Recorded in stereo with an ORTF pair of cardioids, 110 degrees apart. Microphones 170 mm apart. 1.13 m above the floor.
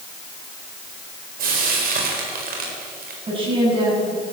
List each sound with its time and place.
1.4 s frying: 60° right, 4.5 m
3.3 s a woman speaking: 30° right, 8 m